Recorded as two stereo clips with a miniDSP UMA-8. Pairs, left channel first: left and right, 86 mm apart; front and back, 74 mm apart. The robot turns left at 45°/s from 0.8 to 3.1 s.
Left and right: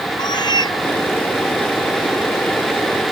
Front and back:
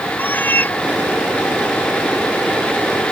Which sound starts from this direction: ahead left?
A cat meowing, at 0.2 s.